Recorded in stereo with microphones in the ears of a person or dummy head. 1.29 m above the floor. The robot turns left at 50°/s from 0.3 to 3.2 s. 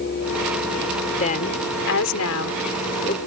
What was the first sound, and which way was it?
A woman speaking, 145° left.